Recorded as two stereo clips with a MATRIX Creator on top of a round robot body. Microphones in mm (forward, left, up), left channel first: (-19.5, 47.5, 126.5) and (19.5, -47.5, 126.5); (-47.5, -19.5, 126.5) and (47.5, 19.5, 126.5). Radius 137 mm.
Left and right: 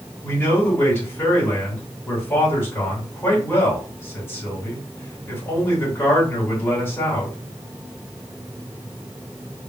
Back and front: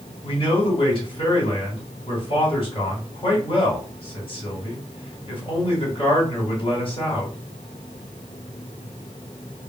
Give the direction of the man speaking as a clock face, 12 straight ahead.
6 o'clock.